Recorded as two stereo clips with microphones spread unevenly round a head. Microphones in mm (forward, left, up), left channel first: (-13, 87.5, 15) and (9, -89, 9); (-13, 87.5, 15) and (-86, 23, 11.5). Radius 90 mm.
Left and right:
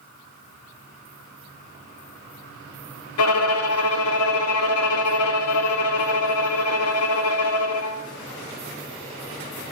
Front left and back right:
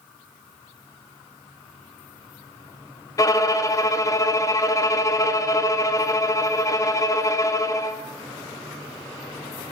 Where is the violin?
100° left, 0.8 m.